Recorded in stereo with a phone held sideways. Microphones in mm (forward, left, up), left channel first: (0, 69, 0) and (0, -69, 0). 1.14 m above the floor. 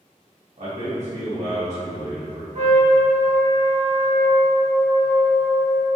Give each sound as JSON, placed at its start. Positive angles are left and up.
{"t": 0.6, "sound": "a man speaking", "side_deg": -55, "distance_m": 1.5}
{"t": 2.5, "sound": "a trumpet", "side_deg": -50, "distance_m": 1.5}